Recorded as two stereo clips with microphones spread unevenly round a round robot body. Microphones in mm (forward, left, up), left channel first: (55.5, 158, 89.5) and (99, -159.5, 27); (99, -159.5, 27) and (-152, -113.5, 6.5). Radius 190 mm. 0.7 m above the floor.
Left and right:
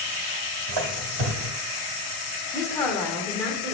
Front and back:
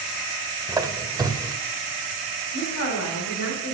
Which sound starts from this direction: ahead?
A woman speaking, at 2.5 s.